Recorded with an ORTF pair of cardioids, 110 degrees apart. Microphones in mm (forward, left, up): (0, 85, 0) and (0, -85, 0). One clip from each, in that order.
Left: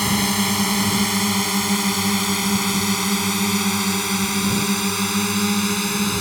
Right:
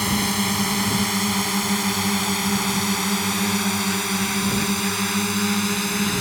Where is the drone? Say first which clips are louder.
Left 2 dB; 15° left; by 6.2 s 10° left.